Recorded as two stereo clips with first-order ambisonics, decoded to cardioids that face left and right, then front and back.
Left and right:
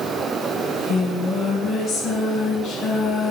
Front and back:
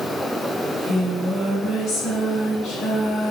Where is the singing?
40° left, 4 m.